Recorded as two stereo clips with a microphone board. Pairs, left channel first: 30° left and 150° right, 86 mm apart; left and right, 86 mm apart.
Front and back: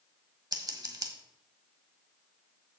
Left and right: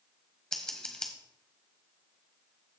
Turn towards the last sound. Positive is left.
turn(degrees=170)